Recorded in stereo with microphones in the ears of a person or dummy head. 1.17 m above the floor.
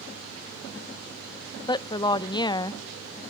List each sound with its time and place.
1.7 s a woman speaking: 20° left (ahead or behind), 0.5 m